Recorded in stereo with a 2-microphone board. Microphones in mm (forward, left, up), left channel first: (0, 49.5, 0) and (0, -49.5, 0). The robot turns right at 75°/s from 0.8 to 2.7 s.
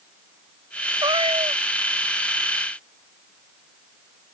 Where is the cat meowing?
135° right; by 1.6 s 85° right.